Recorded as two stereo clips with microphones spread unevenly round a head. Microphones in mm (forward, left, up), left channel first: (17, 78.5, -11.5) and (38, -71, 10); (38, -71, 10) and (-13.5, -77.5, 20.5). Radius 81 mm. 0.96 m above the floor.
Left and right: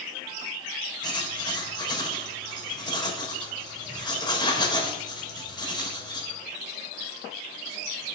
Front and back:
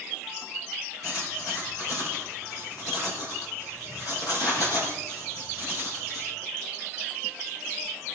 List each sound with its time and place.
1.0 s writing: 35° left, 4.5 m